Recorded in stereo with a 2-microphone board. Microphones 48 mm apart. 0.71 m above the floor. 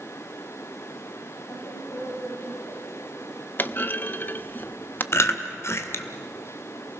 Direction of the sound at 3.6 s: 40° left (ahead or behind).